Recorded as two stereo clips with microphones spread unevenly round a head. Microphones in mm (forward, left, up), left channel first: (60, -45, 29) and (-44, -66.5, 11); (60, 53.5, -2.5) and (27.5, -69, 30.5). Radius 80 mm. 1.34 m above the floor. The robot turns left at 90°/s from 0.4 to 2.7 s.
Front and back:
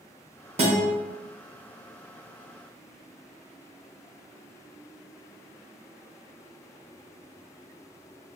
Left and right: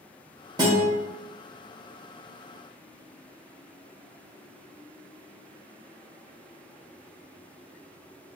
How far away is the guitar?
About 0.9 m.